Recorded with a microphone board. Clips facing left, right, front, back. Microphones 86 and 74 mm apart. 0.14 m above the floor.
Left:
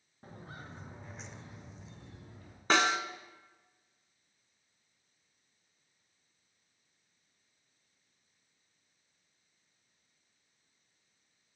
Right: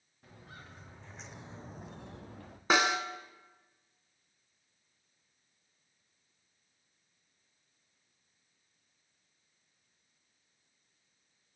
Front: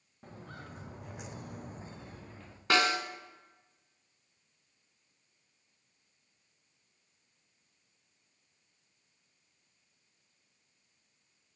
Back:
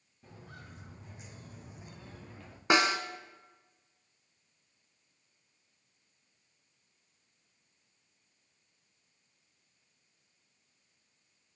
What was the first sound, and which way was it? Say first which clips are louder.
Footsteps: left 4 dB, front 4 dB; 35° left.